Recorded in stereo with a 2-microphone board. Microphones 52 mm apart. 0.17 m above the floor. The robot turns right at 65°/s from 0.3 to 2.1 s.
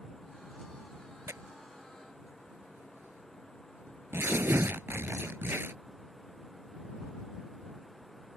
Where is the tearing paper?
70° right (ahead or behind); by 5.7 s 50° right (ahead or behind).